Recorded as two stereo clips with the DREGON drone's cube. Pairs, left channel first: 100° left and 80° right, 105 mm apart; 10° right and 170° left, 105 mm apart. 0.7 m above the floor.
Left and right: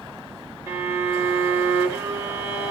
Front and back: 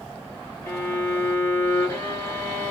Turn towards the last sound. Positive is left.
turn(degrees=-60)